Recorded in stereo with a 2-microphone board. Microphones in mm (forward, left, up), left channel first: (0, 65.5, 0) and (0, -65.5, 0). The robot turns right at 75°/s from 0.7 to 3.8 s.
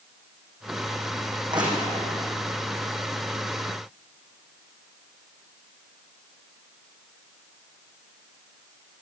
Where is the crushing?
40° right (ahead or behind), 9 m; by 2.1 s centre (ahead or behind), 9 m.